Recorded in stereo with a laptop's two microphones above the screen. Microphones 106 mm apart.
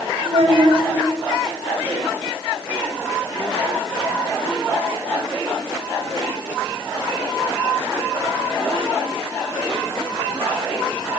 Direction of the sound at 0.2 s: 70° right (ahead or behind).